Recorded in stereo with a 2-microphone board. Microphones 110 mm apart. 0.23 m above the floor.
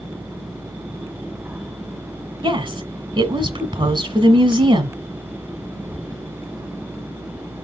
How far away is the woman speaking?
About 1.9 m.